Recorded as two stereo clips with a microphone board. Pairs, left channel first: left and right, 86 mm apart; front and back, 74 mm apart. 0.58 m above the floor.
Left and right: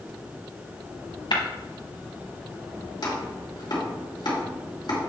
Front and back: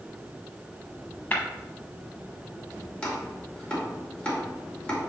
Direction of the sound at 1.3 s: 65° left.